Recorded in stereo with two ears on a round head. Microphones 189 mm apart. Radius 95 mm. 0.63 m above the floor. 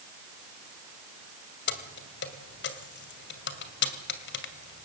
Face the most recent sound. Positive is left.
turn(degrees=55)  # may be behind; listen again after turning